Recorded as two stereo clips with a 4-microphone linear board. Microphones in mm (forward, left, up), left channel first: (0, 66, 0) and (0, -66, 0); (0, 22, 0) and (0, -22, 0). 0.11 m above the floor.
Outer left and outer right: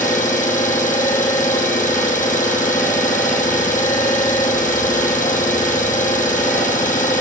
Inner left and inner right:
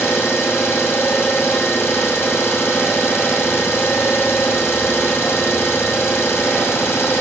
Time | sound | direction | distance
0.0 | an engine running | 75° left (ahead or behind) | 1.6 m